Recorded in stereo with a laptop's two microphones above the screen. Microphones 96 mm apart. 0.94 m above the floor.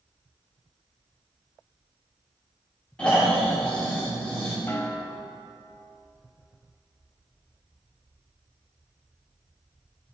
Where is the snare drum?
25° left (ahead or behind), 0.8 m.